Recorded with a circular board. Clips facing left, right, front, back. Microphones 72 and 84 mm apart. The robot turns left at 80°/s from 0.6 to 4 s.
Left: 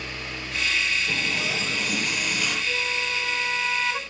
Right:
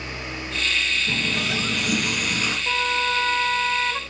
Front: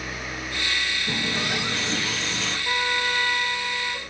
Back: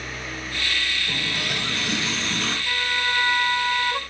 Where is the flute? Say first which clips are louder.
Right 5 dB, front 3 dB; 65° right, 0.8 m; by 4.0 s 175° right, 0.8 m.